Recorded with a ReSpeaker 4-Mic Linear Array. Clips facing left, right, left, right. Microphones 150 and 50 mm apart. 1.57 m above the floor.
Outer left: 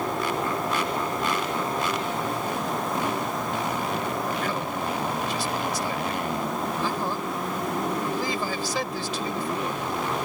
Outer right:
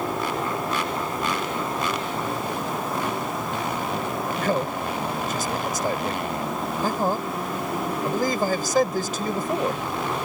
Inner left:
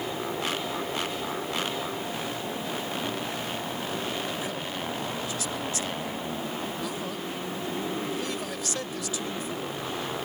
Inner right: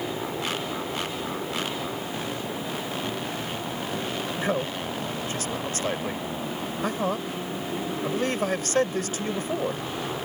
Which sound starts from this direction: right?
A man speaking, at 4.4 s.